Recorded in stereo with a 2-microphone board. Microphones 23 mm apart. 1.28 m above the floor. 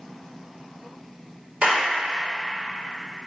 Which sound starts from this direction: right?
A clap, at 1.6 s.